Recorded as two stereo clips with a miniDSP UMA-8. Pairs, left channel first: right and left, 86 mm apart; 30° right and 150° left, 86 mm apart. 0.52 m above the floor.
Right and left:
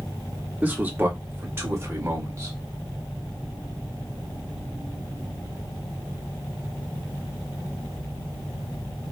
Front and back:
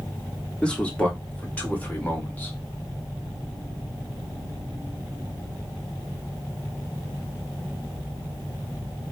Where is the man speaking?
35° left, 1.3 m; by 2.5 s 40° left, 2 m.